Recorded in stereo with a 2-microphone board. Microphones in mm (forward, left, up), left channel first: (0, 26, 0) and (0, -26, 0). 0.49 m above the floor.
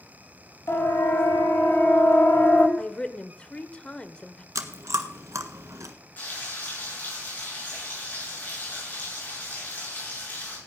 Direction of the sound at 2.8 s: 20° left (ahead or behind).